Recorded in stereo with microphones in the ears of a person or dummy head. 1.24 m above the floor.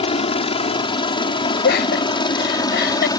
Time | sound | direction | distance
0.0 | a helicopter | 30° left (ahead or behind) | ?
1.6 | laughter | 55° left (ahead or behind) | ?